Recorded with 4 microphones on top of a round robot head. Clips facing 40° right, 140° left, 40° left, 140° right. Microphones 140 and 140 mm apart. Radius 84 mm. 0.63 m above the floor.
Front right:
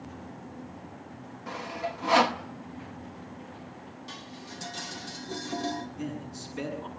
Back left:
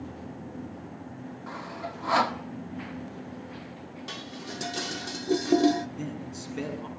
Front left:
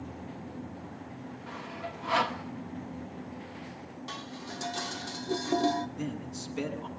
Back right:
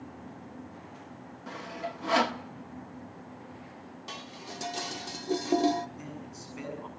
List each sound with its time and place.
1.5 s sawing: 110° right, 1.4 m
4.1 s dishes clattering: 145° left, 1.1 m
6.0 s a man speaking: 100° left, 7 m